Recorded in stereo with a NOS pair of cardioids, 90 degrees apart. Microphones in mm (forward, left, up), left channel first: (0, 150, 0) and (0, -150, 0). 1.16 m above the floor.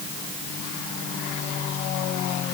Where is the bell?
No bell in this recording.